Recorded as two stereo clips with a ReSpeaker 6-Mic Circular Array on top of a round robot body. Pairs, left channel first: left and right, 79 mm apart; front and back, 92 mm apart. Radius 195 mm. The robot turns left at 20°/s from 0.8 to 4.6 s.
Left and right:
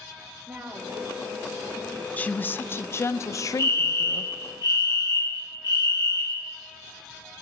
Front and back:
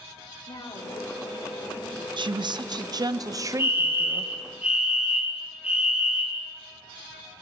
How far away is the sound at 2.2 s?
About 0.6 m.